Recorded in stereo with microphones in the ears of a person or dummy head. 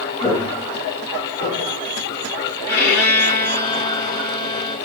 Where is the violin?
20° left (ahead or behind), 2.5 m.